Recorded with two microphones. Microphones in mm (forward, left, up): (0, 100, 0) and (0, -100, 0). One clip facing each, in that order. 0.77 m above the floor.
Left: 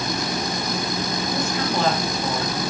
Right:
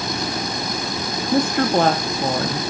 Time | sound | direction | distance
1.3 | a woman speaking | 55° right (ahead or behind) | 1.0 m